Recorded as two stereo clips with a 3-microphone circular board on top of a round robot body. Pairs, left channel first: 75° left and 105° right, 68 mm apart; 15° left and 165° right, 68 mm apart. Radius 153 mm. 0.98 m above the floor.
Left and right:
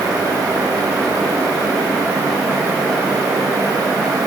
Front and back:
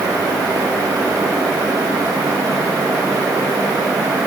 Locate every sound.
Only background noise.